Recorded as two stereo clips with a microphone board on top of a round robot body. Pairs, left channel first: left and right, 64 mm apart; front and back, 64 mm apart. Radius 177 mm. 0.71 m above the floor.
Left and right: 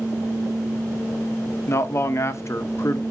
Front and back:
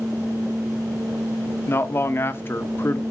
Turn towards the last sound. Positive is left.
turn(degrees=50)